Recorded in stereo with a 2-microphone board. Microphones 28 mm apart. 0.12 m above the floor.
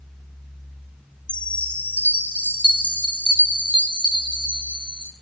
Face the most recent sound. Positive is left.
turn(degrees=45)  # may be behind; listen again after turning